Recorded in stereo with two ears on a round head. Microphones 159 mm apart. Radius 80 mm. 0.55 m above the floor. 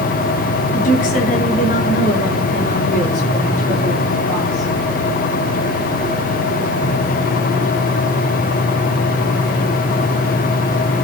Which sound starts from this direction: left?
A woman speaking, at 0.7 s.